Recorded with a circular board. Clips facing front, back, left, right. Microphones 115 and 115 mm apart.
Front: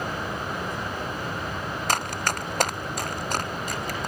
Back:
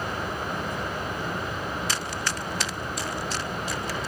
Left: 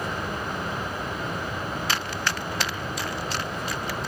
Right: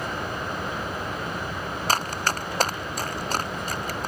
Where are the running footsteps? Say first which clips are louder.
Front 4 dB, right 7 dB; 40° right; by 4.1 s 45° right.